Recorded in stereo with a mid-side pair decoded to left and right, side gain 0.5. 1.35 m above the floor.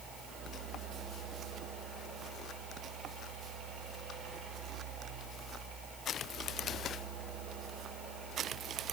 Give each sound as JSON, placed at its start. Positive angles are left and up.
{"t": 0.0, "sound": "a fan", "azimuth_deg": -60, "distance_m": 2.0}